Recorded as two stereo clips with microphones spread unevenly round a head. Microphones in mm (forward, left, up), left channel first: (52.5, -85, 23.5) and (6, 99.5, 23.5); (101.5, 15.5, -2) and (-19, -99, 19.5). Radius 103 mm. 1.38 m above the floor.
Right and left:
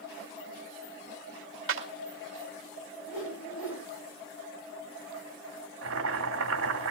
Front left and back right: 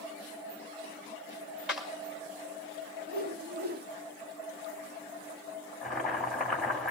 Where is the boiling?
135° left, 3.5 m.